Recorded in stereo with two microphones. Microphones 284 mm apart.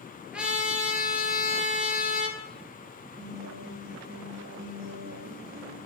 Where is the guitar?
20° right (ahead or behind), 7 m.